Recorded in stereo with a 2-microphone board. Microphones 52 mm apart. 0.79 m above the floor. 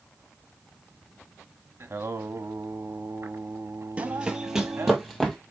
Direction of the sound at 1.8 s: 60° right (ahead or behind).